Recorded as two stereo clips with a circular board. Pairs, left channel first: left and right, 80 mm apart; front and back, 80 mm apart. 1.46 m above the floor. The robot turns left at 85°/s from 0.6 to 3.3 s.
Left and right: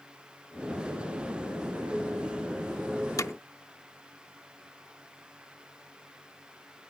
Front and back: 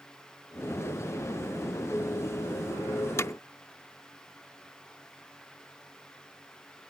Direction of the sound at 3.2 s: 50° left.